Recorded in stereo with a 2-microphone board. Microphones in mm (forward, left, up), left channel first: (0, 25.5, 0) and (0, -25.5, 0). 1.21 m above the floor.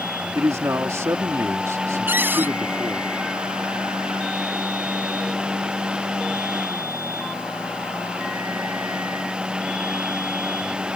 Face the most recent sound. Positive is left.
turn(degrees=-45)  # may be behind; listen again after turning